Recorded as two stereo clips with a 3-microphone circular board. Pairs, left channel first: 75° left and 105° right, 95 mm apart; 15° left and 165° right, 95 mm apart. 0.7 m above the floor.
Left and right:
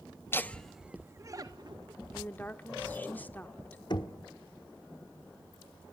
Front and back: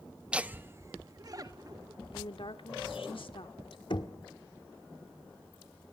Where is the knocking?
40° left, 1.4 m.